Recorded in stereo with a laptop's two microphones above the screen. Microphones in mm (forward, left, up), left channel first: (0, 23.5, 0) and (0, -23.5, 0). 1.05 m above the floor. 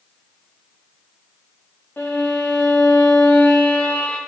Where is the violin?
45° left (ahead or behind), 1.2 m.